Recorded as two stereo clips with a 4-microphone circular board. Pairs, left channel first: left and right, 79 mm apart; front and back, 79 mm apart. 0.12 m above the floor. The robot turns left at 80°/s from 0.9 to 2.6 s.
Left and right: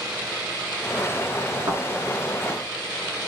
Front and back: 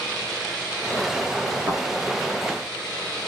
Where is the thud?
130° right, 2.5 m; by 1.8 s 145° right, 2.5 m.